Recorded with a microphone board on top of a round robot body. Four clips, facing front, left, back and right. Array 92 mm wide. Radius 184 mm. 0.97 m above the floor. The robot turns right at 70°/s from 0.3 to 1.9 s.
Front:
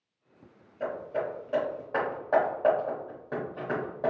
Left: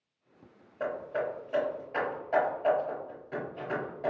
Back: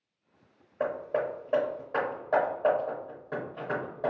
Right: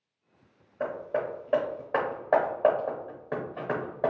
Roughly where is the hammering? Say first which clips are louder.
Right 2 dB, back 2 dB; behind.